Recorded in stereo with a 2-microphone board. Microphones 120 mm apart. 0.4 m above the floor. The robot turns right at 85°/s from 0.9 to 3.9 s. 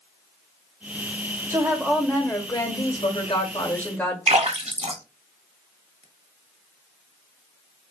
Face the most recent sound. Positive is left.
turn(degrees=-75)  # may be behind; listen again after turning